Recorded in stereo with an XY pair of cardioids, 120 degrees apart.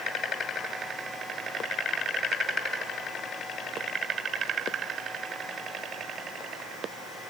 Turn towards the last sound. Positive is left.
No sound to turn to.